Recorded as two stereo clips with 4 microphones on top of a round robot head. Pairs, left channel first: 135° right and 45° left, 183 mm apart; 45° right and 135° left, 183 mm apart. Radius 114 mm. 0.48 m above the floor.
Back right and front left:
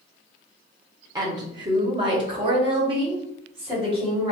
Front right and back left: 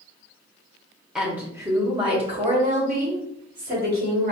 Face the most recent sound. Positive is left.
turn(degrees=105)